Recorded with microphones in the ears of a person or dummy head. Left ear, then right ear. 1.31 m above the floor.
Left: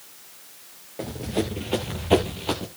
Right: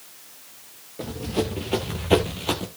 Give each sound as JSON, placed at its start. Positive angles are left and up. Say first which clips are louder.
{"t": 1.0, "sound": "running footsteps", "louder": "right 1 dB", "side_deg": 15, "distance_m": 1.3}